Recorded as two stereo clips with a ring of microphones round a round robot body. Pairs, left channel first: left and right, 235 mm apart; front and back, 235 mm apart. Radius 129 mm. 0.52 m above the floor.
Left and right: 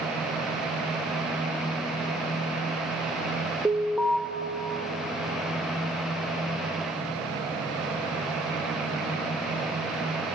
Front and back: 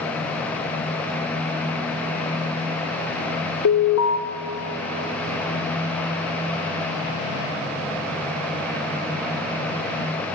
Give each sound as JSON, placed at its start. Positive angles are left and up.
{"t": 3.6, "sound": "an alarm", "azimuth_deg": -5, "distance_m": 0.7}